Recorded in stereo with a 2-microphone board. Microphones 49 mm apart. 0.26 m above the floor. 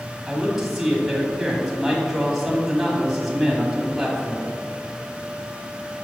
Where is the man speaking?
Centre (ahead or behind), 1.6 m.